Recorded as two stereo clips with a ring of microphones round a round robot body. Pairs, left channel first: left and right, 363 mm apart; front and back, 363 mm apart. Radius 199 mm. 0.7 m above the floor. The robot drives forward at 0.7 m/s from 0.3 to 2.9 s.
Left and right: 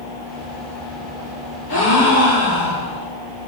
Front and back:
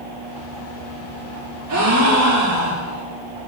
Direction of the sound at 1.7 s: 140° left.